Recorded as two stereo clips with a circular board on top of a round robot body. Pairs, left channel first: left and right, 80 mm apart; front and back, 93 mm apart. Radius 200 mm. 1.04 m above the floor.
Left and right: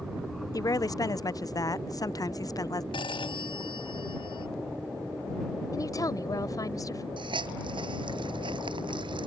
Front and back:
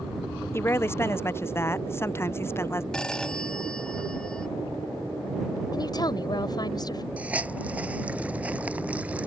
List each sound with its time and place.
0.5 s a woman speaking: 60° left
2.9 s a phone ringing: 80° left
5.7 s a woman speaking: 45° left
7.2 s a hiss: 105° right